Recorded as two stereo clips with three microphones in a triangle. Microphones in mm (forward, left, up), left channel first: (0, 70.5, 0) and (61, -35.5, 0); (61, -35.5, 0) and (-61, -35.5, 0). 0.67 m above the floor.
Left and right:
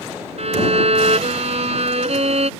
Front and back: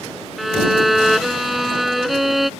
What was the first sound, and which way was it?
A violin, 90° right.